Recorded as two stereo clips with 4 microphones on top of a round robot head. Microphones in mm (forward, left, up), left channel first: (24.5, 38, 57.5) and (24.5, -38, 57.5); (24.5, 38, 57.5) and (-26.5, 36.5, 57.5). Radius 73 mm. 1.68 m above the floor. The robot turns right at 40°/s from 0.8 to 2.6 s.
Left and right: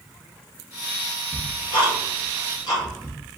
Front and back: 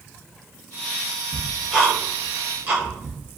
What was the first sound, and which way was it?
Ticking, 85° left.